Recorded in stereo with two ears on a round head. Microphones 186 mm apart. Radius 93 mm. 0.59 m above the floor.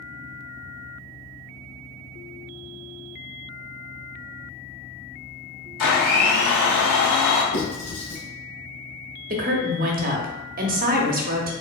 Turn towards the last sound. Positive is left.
turn(degrees=-45)  # may be behind; listen again after turning